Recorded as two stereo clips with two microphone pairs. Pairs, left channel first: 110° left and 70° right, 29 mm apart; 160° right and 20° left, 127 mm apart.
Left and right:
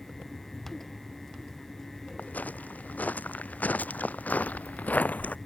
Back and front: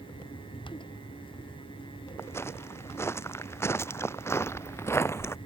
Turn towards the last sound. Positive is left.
turn(degrees=130)